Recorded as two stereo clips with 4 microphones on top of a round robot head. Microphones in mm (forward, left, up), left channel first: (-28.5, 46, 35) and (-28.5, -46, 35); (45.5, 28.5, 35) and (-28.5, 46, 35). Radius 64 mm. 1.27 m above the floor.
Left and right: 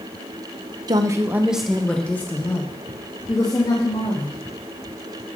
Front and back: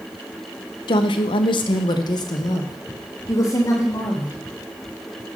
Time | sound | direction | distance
0.9 | a woman speaking | 40° right | 0.8 m